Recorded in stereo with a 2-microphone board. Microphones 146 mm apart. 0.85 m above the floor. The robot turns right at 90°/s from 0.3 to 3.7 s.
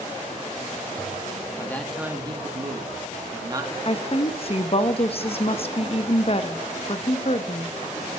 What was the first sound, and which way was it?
A man speaking, 150° left.